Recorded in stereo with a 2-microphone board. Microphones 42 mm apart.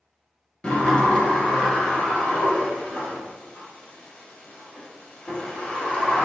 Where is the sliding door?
20° left (ahead or behind), 1.4 m.